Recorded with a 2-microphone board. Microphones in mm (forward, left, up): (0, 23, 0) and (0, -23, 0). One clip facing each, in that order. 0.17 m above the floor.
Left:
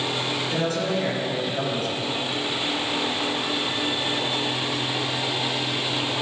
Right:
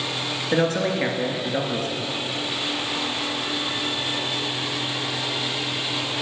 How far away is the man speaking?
About 2.5 m.